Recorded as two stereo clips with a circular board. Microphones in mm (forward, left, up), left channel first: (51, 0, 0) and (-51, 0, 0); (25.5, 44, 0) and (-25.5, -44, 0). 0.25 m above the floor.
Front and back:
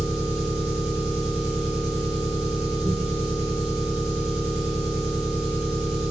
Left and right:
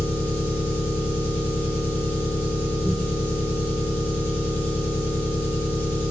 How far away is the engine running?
About 1.0 m.